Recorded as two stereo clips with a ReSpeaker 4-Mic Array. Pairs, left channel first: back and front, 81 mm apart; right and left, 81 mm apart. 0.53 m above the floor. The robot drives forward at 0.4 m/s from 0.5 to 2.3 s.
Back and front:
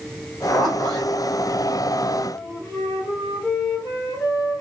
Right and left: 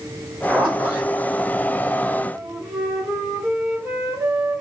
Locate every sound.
0.5 s a zipper: 160° left, 2 m; by 1.1 s 165° left, 2.5 m
2.3 s a flute: 170° left, 1.9 m